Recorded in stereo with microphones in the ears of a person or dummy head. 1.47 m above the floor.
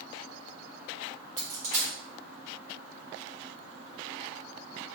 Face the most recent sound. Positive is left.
turn(degrees=-45)  # may be behind; listen again after turning